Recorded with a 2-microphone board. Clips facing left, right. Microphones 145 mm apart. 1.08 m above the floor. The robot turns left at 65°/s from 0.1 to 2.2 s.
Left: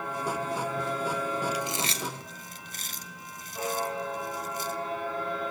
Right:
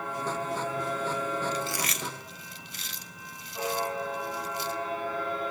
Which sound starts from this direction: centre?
Chewing, at 1.5 s.